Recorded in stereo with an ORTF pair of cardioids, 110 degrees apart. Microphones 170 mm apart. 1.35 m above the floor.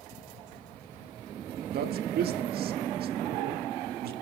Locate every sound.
1.7 s a man speaking: 60° right, 1.8 m